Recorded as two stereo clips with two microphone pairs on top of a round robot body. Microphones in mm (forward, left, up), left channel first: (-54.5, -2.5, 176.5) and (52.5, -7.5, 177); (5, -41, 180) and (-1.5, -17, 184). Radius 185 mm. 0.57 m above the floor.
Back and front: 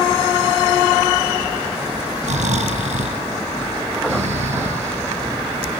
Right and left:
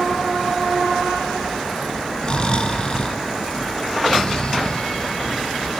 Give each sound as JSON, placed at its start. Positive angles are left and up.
{"t": 2.2, "sound": "snoring", "azimuth_deg": -10, "distance_m": 2.0}